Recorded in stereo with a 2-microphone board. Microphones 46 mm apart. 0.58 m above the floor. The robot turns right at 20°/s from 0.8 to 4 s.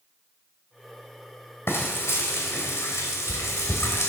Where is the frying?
60° left, 3 m; by 4.1 s 105° left, 3 m.